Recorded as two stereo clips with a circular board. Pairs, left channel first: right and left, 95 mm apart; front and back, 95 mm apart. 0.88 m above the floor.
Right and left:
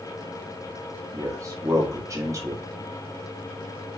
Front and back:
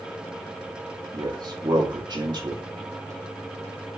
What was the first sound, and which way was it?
A man speaking, 145° left.